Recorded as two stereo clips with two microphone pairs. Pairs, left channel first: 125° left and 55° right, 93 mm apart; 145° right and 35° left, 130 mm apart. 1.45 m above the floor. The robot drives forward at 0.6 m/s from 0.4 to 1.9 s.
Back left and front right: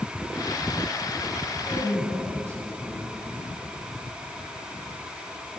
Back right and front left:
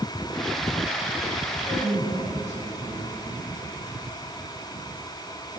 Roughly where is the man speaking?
Behind right.